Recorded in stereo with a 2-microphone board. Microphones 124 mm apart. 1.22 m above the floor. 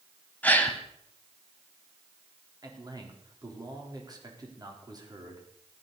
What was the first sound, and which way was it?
A gasp, 15° left (ahead or behind).